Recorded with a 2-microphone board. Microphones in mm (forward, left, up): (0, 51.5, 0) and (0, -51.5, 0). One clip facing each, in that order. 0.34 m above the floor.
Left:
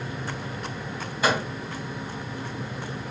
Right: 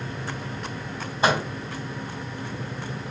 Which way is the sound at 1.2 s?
30° right (ahead or behind).